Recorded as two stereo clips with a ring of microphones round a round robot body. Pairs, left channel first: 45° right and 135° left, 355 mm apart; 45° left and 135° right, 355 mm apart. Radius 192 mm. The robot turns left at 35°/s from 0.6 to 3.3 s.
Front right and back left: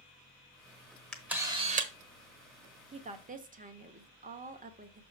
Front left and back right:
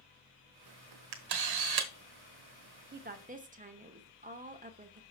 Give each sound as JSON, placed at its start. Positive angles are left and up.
{"t": 1.1, "sound": "a camera shutter", "azimuth_deg": -130, "distance_m": 1.2}
{"t": 2.9, "sound": "a woman speaking", "azimuth_deg": -165, "distance_m": 1.0}